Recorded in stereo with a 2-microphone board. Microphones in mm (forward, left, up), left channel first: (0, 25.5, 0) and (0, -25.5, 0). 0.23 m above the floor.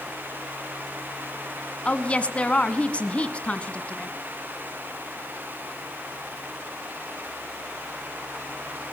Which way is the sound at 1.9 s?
25° left (ahead or behind).